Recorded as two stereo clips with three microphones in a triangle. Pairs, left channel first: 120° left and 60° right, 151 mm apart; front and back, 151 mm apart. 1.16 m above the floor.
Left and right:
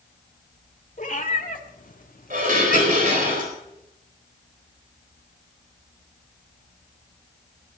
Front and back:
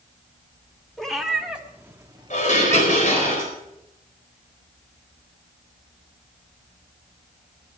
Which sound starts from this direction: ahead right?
Dishes clattering, at 2.3 s.